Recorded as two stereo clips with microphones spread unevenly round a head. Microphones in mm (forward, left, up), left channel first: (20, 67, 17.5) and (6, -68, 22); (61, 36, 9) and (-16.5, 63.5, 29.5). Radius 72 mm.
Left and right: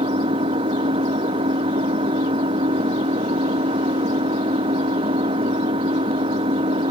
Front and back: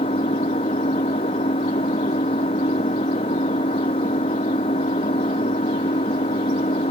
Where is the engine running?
45° right.